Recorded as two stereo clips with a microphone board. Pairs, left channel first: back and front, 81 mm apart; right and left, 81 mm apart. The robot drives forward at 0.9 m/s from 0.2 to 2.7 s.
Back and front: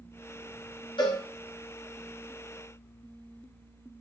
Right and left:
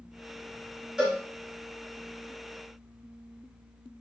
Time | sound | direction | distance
1.0 | a cowbell | 175° left | 5 m